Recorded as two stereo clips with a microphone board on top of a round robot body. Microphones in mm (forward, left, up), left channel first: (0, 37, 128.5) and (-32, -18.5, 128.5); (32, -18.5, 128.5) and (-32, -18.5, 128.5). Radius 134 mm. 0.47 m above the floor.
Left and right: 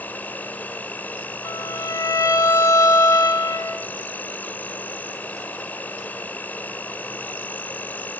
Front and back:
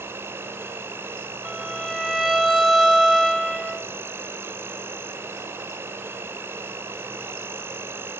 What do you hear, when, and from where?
0.0 s an insect: 125° left, 1.4 m
1.4 s a violin: 90° left, 2.5 m